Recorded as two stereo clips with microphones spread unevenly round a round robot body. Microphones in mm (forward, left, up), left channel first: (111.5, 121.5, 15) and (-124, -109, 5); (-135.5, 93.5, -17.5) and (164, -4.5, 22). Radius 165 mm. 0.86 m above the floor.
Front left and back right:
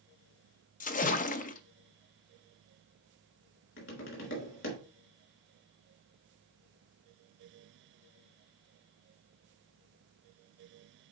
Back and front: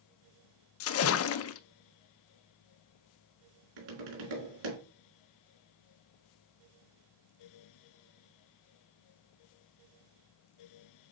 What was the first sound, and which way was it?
A splash, 110° left.